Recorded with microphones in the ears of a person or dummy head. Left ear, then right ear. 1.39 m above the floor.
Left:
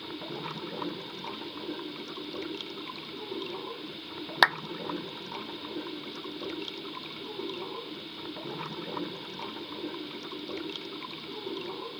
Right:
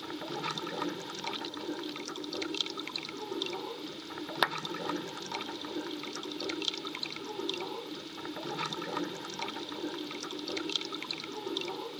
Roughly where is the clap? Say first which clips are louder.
Left 8 dB; centre.